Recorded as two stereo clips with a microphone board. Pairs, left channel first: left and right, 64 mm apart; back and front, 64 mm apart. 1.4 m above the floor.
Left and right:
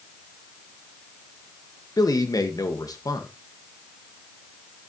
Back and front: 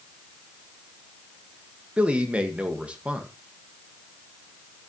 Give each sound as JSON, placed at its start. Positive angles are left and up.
{"t": 2.0, "sound": "a man speaking", "azimuth_deg": 70, "distance_m": 1.5}